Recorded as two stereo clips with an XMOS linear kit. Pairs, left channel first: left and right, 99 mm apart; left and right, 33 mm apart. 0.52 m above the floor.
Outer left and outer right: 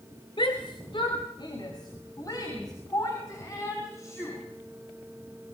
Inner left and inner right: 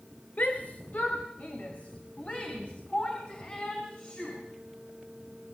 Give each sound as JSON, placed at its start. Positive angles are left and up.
{"t": 0.4, "sound": "a shout", "side_deg": 55, "distance_m": 2.5}